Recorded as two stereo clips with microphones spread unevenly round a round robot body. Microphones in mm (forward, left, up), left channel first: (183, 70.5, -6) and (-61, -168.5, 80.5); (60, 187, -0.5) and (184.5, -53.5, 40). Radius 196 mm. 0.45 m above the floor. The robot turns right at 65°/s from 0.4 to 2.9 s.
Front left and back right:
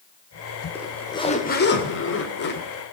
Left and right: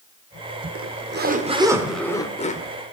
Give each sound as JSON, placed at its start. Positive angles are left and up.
{"t": 0.8, "sound": "a zipper", "azimuth_deg": -40, "distance_m": 1.9}